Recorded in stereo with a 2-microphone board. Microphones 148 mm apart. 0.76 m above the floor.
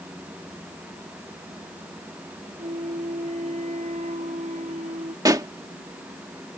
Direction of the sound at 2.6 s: 50° right (ahead or behind).